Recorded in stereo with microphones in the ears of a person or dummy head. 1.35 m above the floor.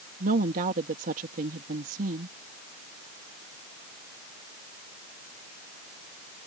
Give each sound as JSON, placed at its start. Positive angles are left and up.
{"t": 0.2, "sound": "a woman speaking", "side_deg": -35}